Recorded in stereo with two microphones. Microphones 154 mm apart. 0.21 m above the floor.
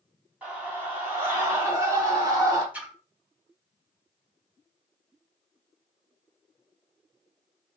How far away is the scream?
About 1.8 m.